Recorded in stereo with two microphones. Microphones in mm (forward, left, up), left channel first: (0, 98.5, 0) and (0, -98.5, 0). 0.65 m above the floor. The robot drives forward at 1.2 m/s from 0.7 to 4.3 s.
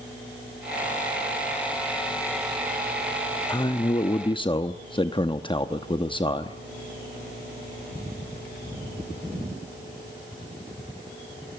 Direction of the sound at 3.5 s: 20° left (ahead or behind).